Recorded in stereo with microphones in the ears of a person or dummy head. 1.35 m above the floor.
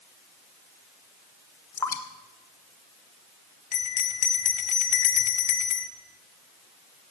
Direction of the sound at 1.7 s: 15° left (ahead or behind).